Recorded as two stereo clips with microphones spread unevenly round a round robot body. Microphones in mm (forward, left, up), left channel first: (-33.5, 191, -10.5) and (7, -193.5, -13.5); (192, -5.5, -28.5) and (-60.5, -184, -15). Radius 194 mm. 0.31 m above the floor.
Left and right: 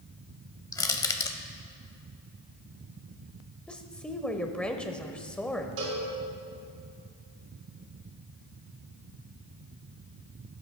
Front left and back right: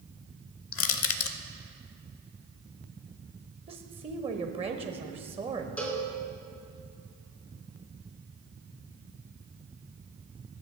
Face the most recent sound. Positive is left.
turn(degrees=-50)